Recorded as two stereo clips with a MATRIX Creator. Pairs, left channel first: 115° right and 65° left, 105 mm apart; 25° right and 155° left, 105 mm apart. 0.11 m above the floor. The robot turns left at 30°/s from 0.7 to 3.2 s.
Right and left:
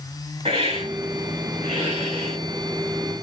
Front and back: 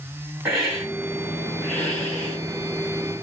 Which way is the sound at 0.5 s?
80° left.